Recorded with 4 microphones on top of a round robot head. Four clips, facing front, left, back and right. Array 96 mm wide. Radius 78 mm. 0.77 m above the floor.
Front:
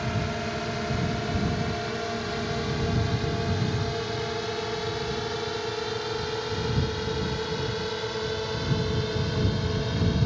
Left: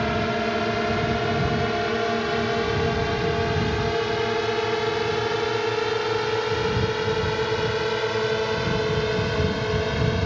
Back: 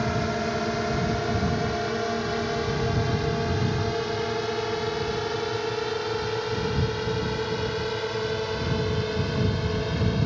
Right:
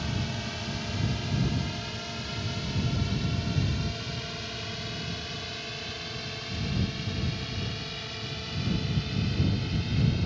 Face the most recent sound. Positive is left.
turn(degrees=100)